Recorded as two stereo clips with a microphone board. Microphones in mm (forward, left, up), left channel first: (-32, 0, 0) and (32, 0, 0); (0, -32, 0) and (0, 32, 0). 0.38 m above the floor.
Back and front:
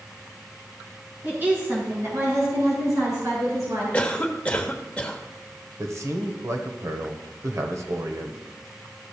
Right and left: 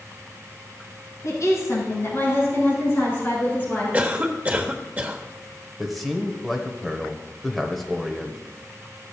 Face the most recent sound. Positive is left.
turn(degrees=0)